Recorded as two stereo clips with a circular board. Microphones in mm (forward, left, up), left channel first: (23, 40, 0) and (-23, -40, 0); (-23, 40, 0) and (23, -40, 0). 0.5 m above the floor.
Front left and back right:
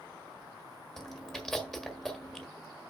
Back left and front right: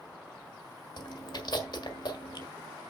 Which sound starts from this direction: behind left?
Chewing, at 1.0 s.